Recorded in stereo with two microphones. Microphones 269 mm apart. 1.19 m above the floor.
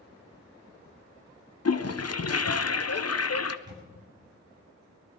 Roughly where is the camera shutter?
Centre.